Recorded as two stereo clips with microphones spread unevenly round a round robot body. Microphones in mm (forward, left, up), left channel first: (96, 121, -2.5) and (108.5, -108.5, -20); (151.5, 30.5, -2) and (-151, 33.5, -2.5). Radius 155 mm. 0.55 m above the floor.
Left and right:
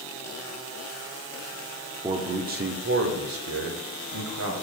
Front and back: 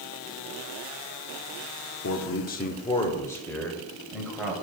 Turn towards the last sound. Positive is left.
turn(degrees=-95)